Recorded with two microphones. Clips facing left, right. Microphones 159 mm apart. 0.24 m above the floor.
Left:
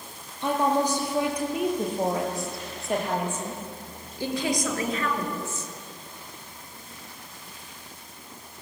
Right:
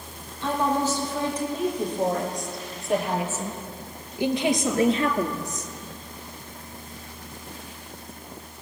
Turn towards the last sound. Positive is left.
turn(degrees=-45)  # may be behind; listen again after turning